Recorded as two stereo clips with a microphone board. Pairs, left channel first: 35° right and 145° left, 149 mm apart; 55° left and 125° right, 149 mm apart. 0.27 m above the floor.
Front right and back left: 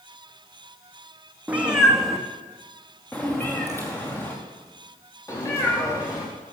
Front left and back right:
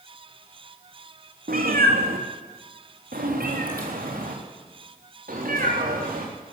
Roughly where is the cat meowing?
Behind right.